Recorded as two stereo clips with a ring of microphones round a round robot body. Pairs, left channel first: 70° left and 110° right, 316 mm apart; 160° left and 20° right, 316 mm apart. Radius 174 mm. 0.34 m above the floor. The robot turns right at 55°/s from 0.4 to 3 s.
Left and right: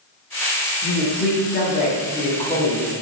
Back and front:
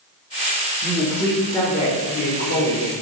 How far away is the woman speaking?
About 0.9 m.